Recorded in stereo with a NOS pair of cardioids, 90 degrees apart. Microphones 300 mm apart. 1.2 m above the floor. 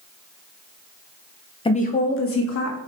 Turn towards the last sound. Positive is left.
turn(degrees=65)